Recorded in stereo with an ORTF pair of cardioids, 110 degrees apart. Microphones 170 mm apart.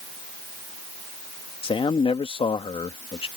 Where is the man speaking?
30° left.